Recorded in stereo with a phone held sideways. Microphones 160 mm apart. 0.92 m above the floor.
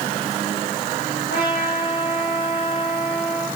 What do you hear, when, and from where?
1.3 s a trumpet: 80° left, 8.5 m